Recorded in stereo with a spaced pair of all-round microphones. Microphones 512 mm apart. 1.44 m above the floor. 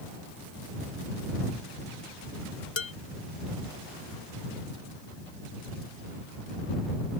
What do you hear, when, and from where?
2.8 s dishes clattering: 60° left (ahead or behind)